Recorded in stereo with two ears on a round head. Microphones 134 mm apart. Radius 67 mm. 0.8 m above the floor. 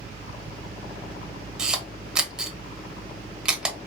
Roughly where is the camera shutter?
Centre.